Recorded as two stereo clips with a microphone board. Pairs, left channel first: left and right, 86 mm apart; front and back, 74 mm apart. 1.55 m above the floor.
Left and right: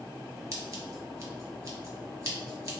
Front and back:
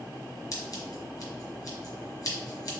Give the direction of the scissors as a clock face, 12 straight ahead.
1 o'clock.